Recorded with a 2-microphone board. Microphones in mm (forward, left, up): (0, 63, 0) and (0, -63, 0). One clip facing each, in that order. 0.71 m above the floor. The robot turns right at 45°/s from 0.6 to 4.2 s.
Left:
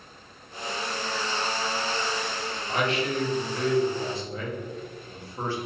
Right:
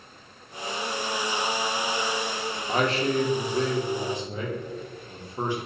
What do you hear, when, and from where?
2.7 s a man speaking: 95° right, 0.7 m; by 5.6 s 25° right, 0.7 m